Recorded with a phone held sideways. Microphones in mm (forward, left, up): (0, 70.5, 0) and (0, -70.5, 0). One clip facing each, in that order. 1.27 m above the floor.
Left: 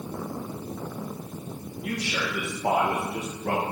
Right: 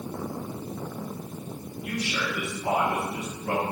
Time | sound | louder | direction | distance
1.8 | a man speaking | even | 75° left (ahead or behind) | 1.4 m